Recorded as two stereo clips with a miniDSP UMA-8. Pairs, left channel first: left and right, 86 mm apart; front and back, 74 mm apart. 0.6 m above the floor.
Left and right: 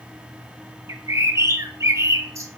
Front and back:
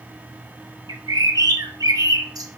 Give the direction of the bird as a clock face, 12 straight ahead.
5 o'clock.